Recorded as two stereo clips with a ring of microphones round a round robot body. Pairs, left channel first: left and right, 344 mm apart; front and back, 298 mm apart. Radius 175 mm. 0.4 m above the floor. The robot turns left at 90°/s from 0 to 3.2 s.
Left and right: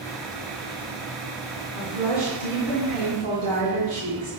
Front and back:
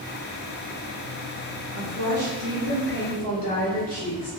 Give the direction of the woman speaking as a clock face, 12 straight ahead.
6 o'clock.